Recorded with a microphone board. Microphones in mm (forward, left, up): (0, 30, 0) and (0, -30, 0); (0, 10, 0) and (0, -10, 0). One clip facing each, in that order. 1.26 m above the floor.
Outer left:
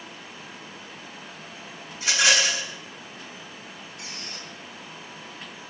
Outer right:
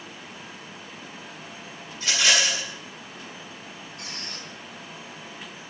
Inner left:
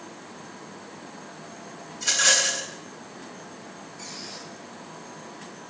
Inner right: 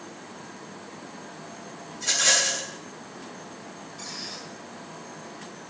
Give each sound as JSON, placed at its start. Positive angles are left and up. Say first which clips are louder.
{"t": 1.9, "sound": "a rattle", "louder": "outer left 1 dB, inner left 1 dB", "side_deg": 20, "distance_m": 6.5}
{"t": 4.0, "sound": "a squeak", "louder": "outer right 1 dB, inner right 2 dB", "side_deg": -45, "distance_m": 6.5}